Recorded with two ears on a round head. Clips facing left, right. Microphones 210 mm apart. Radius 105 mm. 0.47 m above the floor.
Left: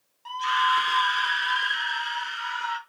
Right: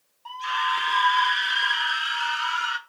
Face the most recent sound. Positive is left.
turn(degrees=-15)  # may be behind; listen again after turning